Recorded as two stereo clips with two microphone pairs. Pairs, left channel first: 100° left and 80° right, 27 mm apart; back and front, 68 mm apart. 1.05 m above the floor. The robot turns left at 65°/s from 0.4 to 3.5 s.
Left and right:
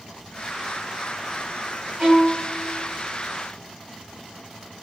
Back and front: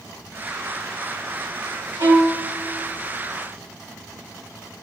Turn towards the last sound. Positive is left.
turn(degrees=-125)